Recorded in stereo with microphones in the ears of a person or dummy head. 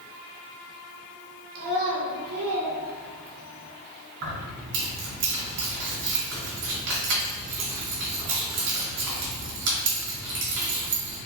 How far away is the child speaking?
About 1.4 m.